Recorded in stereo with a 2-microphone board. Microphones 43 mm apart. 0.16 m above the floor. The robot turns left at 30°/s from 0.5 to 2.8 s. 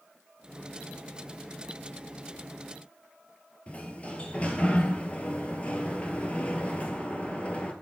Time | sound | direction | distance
3.7 | a sliding door | 30° left (ahead or behind) | 0.6 m